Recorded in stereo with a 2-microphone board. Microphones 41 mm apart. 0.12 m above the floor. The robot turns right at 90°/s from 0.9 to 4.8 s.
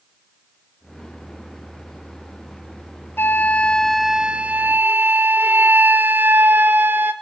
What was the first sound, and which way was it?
A flute, 105° left.